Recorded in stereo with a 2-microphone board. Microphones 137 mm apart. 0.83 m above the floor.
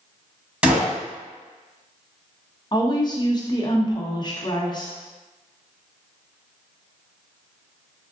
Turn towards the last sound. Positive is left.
turn(degrees=30)  # may be behind; listen again after turning